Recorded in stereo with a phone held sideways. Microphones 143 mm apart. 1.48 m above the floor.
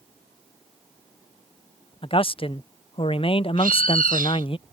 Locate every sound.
2.0 s a man speaking: 40° left (ahead or behind)
3.6 s a bird: 80° right